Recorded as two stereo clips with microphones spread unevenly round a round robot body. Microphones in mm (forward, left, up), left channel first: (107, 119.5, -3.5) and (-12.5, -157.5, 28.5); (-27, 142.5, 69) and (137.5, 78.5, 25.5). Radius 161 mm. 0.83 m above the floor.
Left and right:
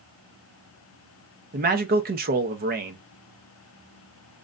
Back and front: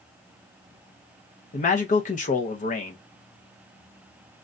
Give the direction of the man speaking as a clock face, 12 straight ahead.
5 o'clock.